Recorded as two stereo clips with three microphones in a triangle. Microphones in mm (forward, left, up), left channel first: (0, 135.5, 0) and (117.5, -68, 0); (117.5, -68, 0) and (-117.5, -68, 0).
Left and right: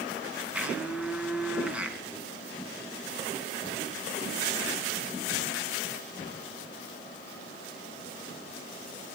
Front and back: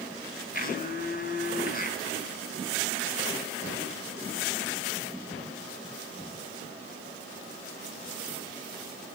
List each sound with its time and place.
0.5 s a blender: 25° left, 2 m